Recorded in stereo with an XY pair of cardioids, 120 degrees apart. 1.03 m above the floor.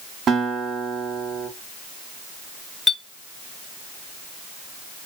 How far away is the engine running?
I don't hear an engine running.